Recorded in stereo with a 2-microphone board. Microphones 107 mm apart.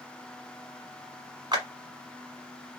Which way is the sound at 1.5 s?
40° right (ahead or behind).